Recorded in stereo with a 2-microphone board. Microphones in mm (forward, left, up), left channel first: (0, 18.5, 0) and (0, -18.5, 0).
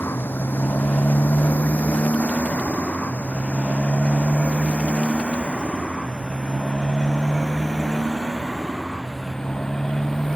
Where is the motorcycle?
65° left (ahead or behind); by 10.4 s 10° left (ahead or behind).